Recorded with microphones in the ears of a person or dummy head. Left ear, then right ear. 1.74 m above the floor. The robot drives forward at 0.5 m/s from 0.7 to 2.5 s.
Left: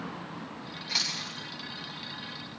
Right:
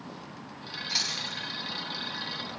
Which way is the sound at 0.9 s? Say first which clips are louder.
Even; 5° left (ahead or behind).